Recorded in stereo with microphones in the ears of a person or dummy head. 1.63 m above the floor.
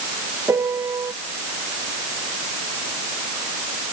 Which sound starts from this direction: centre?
A piano, at 0.5 s.